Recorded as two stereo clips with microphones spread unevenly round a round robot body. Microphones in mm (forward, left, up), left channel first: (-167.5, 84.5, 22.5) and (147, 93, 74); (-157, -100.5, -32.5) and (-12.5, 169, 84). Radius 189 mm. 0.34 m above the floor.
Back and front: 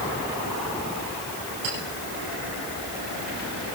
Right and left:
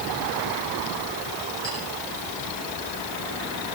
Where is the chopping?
No chopping in this recording.